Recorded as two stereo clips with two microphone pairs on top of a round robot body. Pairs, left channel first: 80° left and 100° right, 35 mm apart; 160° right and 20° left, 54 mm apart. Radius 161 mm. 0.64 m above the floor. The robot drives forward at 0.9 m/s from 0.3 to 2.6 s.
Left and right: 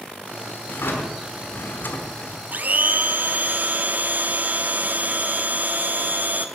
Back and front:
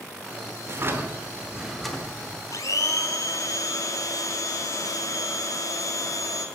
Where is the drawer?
60° left, 1.3 m; by 2.4 s 130° left, 1.4 m.